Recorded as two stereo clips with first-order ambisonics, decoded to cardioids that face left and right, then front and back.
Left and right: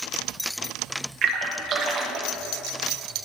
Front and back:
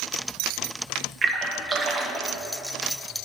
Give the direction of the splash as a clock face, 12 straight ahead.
4 o'clock.